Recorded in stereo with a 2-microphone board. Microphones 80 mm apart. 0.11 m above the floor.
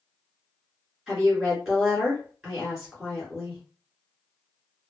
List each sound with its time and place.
1.1 s a woman speaking: 5° right (ahead or behind), 1.7 m